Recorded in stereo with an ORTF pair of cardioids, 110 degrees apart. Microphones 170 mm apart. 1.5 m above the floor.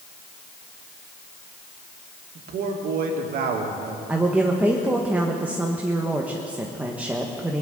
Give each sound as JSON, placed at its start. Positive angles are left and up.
{"t": 2.4, "sound": "a man speaking", "azimuth_deg": -60, "distance_m": 2.5}
{"t": 4.1, "sound": "a woman speaking", "azimuth_deg": -10, "distance_m": 1.4}